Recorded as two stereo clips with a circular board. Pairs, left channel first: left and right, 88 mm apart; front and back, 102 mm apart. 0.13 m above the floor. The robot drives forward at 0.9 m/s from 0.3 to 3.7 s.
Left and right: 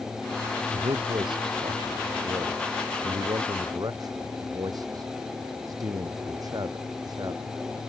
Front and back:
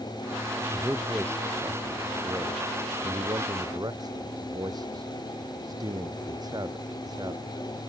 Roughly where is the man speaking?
Right.